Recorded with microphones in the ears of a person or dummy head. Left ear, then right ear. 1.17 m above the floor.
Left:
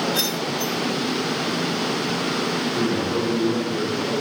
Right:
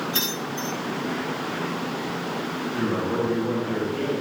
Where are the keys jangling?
50° right (ahead or behind), 6 m.